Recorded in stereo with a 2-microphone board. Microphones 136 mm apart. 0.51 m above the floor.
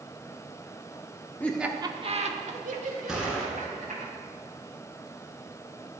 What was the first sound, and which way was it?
Laughter, 15° left (ahead or behind).